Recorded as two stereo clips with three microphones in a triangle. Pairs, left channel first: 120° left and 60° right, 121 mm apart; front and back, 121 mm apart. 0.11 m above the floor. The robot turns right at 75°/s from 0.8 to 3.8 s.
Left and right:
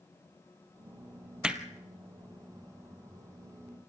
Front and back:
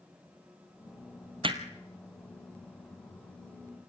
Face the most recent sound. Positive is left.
turn(degrees=35)